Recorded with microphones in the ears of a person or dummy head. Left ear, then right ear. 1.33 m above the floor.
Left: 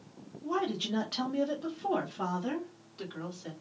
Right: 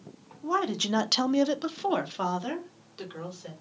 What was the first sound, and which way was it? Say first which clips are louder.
A woman speaking: right 5 dB; 35° right (ahead or behind).